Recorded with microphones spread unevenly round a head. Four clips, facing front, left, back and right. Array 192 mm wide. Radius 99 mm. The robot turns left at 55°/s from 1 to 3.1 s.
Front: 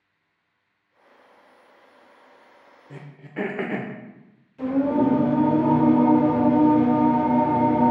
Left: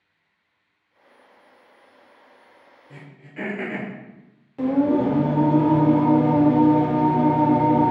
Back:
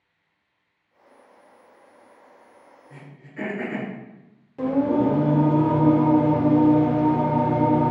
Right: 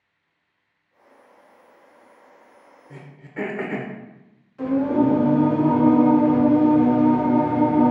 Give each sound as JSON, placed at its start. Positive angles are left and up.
{"t": 2.9, "sound": "throat clearing", "azimuth_deg": -15, "distance_m": 0.5}
{"t": 4.6, "sound": "singing", "azimuth_deg": 135, "distance_m": 1.3}